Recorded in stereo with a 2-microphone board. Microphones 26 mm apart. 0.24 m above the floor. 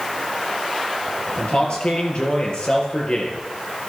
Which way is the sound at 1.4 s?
55° left (ahead or behind).